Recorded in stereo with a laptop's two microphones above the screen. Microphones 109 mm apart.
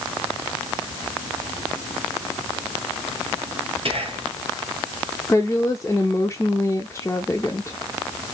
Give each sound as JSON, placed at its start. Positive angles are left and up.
{"t": 3.9, "sound": "whispering", "side_deg": -60, "distance_m": 1.1}
{"t": 5.3, "sound": "a woman speaking", "side_deg": 25, "distance_m": 0.7}